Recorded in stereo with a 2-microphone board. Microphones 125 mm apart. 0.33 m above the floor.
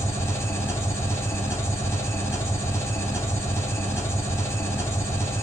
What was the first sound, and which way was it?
An engine running, 25° left (ahead or behind).